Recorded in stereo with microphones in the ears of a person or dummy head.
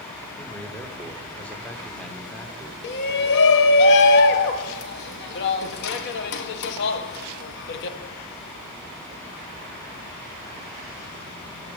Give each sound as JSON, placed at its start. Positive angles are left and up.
{"t": 0.4, "sound": "a man speaking", "side_deg": 10, "distance_m": 0.7}
{"t": 2.8, "sound": "a shout", "side_deg": 65, "distance_m": 0.7}